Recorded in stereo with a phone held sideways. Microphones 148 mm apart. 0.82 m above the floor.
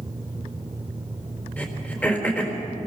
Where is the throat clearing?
10° left (ahead or behind), 4 m.